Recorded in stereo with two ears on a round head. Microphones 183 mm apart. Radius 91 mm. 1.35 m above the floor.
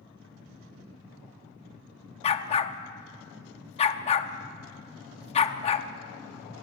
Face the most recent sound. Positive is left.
turn(degrees=30)  # may be behind; listen again after turning